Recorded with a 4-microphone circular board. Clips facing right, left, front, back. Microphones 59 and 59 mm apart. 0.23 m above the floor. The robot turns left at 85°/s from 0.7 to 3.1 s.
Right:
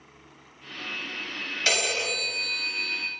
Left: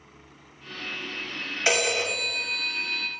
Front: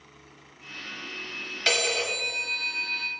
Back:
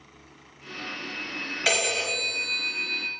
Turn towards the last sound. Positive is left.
turn(degrees=-5)